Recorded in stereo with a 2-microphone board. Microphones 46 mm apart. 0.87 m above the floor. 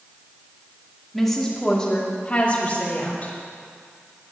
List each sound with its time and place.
1.1 s a woman speaking: centre (ahead or behind), 2.5 m; by 3.3 s 40° left (ahead or behind), 3.5 m